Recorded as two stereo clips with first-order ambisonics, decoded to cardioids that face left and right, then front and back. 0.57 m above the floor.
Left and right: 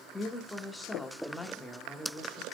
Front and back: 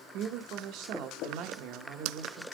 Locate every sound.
0.1 s a woman speaking: 175° left, 0.9 m